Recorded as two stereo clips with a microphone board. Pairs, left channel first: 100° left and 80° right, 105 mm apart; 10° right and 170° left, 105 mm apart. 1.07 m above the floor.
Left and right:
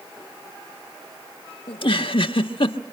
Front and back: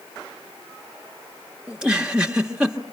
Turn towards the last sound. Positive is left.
turn(degrees=90)